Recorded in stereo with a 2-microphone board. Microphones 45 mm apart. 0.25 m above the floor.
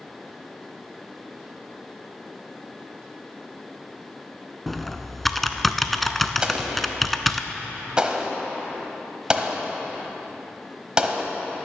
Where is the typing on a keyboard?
5° left (ahead or behind), 0.5 m.